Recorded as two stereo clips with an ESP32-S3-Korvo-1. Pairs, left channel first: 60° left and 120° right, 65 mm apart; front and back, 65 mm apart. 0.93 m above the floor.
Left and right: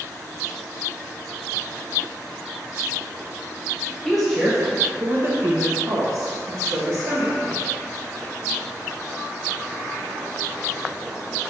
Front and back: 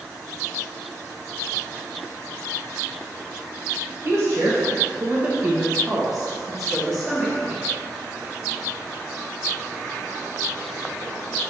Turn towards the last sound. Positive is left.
turn(degrees=-85)